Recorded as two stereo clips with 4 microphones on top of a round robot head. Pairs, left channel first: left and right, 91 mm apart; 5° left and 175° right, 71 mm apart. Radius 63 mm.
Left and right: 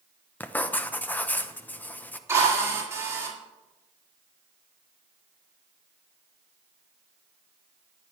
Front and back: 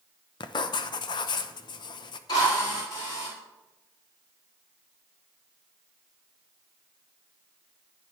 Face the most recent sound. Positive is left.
turn(degrees=-30)